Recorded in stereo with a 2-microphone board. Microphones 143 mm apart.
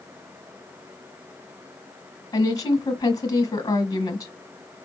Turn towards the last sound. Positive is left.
turn(degrees=30)  # may be behind; listen again after turning